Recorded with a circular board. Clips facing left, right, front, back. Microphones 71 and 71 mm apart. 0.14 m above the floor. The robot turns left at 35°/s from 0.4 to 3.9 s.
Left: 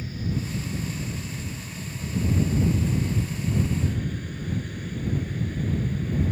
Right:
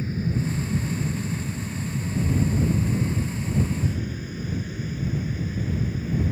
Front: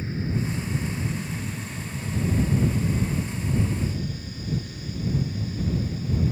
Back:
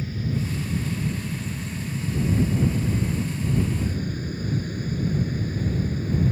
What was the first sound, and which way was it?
An aircraft, 50° right.